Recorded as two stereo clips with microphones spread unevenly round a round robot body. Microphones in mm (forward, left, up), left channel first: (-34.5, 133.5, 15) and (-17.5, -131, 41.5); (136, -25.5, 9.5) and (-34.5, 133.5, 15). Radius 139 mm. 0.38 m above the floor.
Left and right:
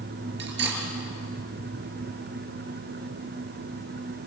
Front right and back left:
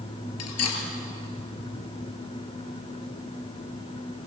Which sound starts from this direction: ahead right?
Cutlery clinking, at 0.4 s.